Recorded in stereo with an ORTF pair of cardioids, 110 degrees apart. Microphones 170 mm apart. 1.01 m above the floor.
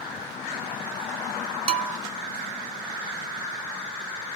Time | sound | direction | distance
1.7 | a bell | 40° right | 0.9 m